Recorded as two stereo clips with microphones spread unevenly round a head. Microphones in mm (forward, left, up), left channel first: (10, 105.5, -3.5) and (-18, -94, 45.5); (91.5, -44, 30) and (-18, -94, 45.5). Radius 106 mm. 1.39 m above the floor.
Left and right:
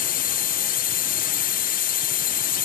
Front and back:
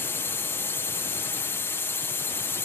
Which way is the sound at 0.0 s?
90° left.